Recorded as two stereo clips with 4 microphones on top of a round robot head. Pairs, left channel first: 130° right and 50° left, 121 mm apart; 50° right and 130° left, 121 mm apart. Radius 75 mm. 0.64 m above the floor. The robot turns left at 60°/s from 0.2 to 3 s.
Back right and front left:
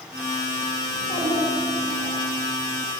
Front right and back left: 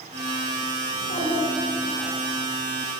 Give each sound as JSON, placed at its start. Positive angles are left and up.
{"t": 0.9, "sound": "a child speaking", "azimuth_deg": -60, "distance_m": 2.5}